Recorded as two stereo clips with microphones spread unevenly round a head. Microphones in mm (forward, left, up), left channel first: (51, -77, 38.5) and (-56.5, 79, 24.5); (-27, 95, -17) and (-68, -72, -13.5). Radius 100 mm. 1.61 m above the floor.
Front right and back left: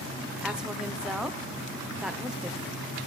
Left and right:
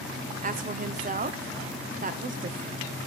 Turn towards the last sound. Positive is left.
turn(degrees=-150)